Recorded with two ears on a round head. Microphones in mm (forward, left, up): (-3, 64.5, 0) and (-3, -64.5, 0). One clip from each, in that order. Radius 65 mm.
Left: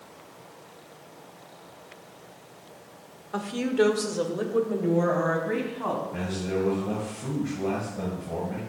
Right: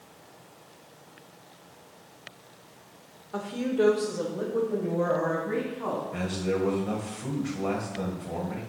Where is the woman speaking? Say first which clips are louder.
Left 3 dB; 25° left (ahead or behind), 1.0 m; by 6.0 s 65° left (ahead or behind), 3 m.